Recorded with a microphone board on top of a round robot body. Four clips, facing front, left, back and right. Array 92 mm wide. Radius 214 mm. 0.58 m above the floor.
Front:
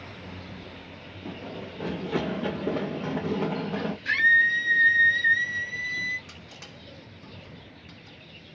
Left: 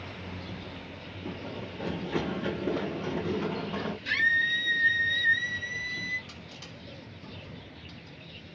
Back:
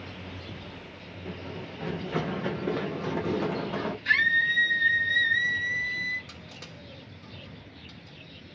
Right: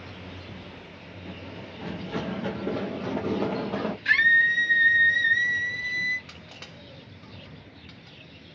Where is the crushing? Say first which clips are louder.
Right 1 dB, even; 70° right, 2 m.